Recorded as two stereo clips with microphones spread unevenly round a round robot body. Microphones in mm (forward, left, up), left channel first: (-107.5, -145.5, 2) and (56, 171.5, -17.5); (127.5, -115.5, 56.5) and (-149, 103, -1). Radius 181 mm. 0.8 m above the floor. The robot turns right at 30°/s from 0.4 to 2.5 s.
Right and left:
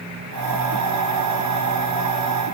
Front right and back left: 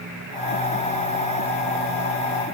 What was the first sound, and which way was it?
Only background noise.